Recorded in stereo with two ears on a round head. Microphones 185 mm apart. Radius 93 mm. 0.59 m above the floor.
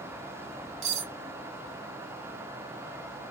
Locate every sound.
0.8 s cutlery clinking: 40° right (ahead or behind), 2 m